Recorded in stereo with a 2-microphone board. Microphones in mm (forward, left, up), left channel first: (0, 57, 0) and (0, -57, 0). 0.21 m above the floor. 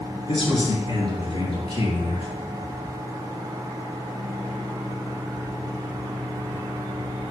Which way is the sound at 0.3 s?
45° left (ahead or behind).